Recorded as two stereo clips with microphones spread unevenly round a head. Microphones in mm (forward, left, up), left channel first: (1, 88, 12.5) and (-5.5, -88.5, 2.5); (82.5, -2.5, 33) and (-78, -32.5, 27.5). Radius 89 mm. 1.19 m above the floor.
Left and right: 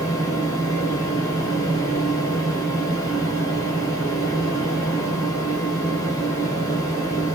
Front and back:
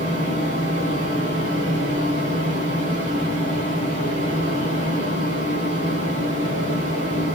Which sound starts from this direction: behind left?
A fan, at 0.0 s.